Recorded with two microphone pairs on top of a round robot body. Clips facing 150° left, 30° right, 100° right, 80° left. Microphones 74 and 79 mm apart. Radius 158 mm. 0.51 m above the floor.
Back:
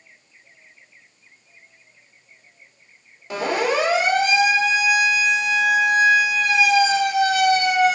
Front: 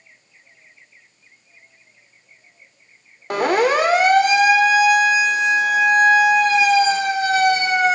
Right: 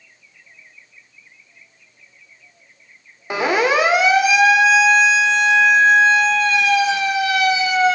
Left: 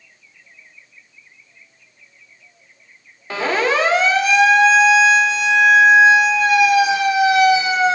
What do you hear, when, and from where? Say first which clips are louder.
3.3 s a siren: front 5 dB, right 2 dB; 25° right, 3 m; by 8.0 s 20° left, 4 m